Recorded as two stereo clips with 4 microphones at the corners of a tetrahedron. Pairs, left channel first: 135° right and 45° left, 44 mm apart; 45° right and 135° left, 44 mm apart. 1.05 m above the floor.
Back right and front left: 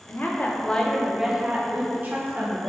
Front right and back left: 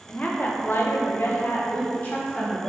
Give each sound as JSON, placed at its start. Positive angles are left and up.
{"t": 0.1, "sound": "a woman speaking", "azimuth_deg": -100, "distance_m": 0.7}